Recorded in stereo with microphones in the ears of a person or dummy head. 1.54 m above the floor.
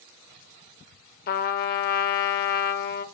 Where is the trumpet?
45° left (ahead or behind), 0.8 m.